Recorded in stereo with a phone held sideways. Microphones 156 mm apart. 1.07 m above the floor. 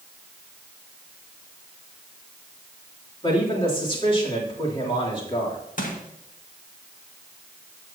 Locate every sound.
3.2 s a man speaking: 35° left (ahead or behind), 3 m
5.8 s crushing: 60° left (ahead or behind), 1.9 m